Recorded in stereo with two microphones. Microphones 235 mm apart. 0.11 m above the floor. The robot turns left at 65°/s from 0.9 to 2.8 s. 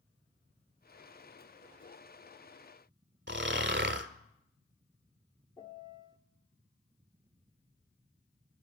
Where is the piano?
20° left (ahead or behind), 0.9 m.